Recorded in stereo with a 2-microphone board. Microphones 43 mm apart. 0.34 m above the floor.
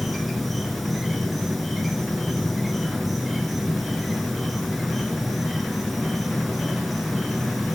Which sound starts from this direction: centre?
An insect, at 0.0 s.